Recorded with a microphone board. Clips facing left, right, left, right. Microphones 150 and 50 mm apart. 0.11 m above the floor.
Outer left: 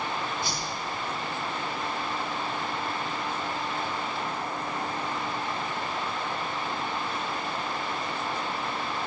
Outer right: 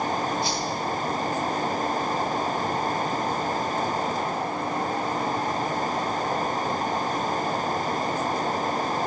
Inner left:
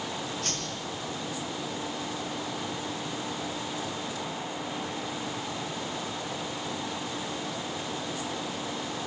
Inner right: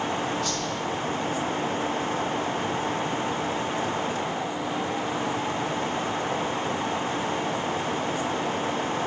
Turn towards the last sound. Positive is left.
turn(degrees=55)  # may be behind; listen again after turning